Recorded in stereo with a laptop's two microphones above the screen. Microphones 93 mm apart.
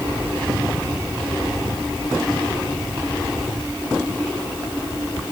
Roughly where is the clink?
No clink in this recording.